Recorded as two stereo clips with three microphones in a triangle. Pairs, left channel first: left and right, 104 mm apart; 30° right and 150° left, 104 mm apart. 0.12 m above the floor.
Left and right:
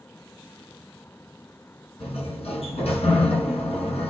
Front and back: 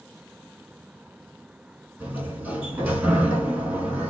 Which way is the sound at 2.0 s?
75° left.